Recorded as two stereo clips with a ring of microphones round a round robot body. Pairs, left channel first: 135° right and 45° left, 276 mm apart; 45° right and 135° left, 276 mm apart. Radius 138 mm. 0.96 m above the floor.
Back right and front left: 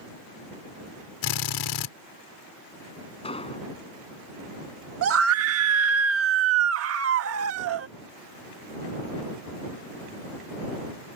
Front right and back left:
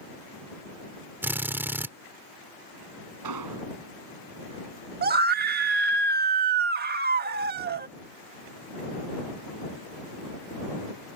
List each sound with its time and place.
1.2 s a drill: 140° right
3.2 s an explosion: 155° left
5.0 s a scream: 80° left